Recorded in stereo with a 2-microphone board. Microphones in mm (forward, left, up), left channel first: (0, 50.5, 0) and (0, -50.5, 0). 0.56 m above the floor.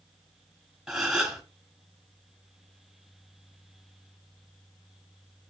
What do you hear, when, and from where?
0.9 s a gasp: 5° right (ahead or behind), 1.2 m